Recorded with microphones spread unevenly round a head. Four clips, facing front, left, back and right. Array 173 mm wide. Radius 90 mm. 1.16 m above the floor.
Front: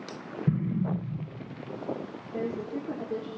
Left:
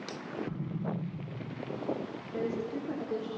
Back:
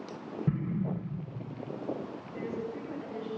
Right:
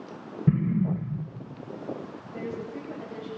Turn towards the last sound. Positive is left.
turn(degrees=20)